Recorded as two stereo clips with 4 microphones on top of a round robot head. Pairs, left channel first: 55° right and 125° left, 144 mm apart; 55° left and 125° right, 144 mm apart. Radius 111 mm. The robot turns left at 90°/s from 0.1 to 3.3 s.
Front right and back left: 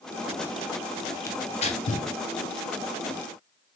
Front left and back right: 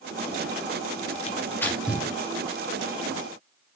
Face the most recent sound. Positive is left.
turn(degrees=-170)